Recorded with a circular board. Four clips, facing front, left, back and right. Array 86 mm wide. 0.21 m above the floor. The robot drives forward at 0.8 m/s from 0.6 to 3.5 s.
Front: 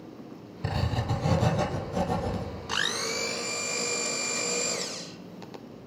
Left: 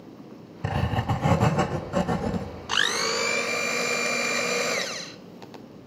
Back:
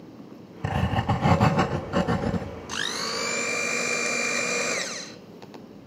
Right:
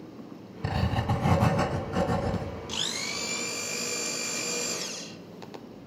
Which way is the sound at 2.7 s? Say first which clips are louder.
Left 10 dB, front 1 dB; 70° left.